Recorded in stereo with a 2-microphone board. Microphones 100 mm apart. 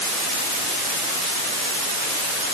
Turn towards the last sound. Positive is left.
No sound to turn to.